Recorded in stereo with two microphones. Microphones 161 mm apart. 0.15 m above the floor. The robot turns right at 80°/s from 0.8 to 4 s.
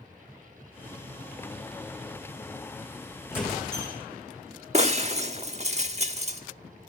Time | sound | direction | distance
3.3 | a squeak | 160° left | 3.5 m
4.7 | breaking glass | 45° right (ahead or behind) | 0.7 m